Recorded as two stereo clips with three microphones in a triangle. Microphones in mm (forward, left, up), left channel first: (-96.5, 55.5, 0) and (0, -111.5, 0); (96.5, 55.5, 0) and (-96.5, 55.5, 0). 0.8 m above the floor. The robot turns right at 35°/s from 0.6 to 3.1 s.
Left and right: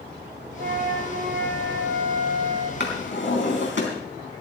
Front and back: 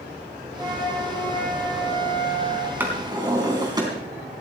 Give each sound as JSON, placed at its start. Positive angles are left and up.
{"t": 0.6, "sound": "a flute", "azimuth_deg": -100, "distance_m": 6.5}
{"t": 2.8, "sound": "a drawer", "azimuth_deg": 100, "distance_m": 4.0}